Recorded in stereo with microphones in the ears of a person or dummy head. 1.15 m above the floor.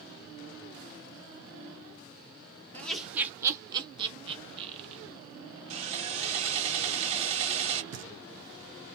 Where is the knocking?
75° right (ahead or behind), 1.1 m.